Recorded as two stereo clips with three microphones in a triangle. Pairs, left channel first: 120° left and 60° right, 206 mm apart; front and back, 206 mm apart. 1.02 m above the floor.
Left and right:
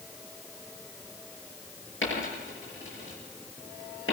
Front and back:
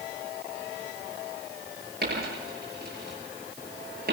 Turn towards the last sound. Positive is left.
turn(degrees=135)